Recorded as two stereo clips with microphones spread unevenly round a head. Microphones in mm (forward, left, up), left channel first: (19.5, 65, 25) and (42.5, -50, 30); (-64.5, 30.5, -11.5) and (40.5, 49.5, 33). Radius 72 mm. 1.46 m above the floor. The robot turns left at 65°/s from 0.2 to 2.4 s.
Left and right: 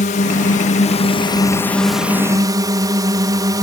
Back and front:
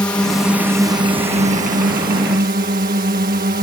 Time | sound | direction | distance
0.0 | a drone | 125° left | ?